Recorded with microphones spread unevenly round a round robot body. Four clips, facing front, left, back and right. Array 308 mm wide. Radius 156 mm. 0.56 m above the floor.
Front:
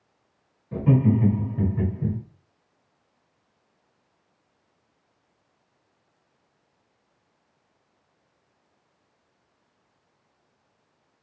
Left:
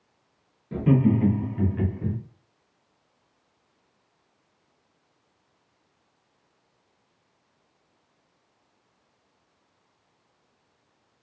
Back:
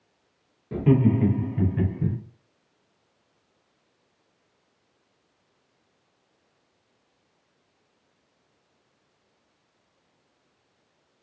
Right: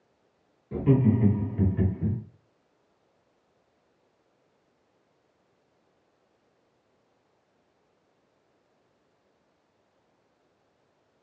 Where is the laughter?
150° left, 1.7 m; by 2.2 s 175° right, 2.0 m.